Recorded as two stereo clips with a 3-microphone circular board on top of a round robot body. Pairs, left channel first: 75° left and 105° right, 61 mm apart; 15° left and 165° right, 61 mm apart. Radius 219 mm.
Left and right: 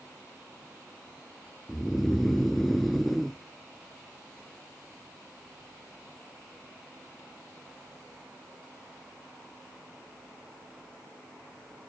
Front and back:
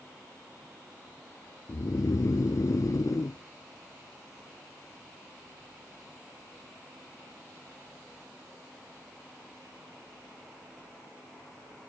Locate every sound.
1.7 s snoring: 15° right, 0.5 m